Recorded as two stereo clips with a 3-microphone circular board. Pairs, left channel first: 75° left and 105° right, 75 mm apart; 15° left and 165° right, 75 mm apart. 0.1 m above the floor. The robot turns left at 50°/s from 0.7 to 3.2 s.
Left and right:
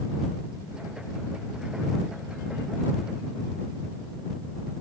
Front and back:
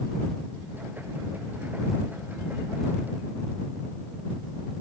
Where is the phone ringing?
I don't hear a phone ringing.